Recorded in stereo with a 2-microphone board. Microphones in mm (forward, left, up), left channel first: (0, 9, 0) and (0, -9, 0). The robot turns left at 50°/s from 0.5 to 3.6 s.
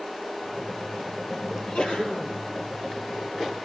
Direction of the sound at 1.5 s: 130° left.